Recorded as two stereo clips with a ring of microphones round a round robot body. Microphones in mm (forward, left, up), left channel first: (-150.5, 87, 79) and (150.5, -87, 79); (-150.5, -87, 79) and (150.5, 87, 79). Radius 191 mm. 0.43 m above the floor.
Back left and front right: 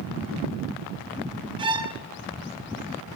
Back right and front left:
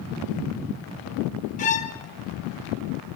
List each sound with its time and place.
1.6 s a violin: 95° right, 0.7 m